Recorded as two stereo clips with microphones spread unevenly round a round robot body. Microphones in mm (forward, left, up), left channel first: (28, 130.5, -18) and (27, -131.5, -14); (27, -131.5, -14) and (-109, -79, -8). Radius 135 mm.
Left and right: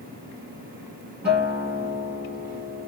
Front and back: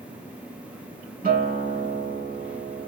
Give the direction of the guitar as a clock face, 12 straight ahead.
6 o'clock.